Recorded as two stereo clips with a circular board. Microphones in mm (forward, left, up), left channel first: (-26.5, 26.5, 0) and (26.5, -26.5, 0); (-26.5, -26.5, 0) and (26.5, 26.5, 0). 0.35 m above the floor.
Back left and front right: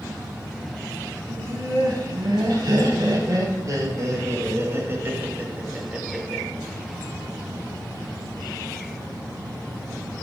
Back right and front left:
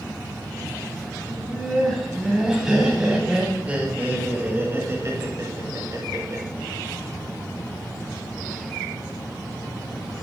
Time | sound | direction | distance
1.3 | laughter | 45° right | 3 m